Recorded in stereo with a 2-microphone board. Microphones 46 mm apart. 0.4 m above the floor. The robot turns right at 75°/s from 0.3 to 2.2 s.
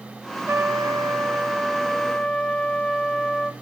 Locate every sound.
0.5 s a trumpet: 120° right, 0.6 m; by 3.5 s 10° left, 0.6 m